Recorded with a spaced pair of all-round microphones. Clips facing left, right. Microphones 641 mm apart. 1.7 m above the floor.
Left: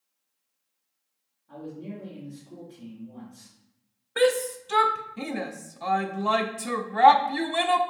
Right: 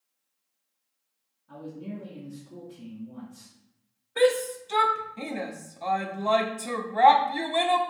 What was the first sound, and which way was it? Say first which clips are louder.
A man speaking: even; 40° right (ahead or behind).